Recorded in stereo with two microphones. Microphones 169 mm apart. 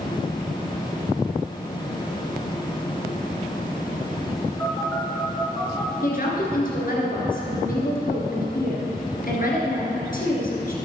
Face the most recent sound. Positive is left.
turn(degrees=60)  # may be behind; listen again after turning